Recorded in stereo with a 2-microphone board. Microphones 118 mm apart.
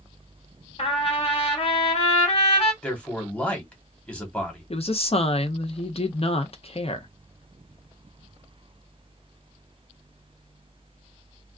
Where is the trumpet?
55° left (ahead or behind), 1.2 m.